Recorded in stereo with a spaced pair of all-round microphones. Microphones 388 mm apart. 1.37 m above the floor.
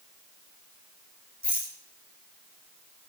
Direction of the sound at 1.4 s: 60° right (ahead or behind).